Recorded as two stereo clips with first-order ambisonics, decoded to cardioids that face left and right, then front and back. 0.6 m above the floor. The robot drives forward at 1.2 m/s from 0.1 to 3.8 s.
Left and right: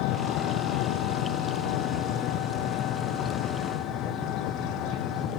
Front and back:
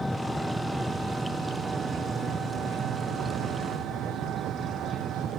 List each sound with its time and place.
0.0 s an engine running: 85° left; by 5.4 s 125° left